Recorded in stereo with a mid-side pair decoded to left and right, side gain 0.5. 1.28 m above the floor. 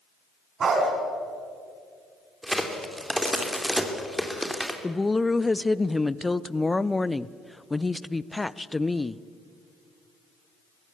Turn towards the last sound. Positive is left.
turn(degrees=15)